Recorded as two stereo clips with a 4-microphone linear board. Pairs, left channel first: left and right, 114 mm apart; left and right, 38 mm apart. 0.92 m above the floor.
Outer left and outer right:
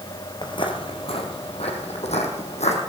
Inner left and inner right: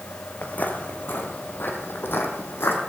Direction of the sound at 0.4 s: 40° left (ahead or behind).